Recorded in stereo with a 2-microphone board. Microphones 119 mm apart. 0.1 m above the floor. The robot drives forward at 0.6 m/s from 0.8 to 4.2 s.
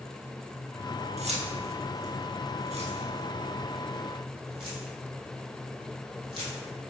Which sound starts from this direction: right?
Keys jangling, at 1.2 s.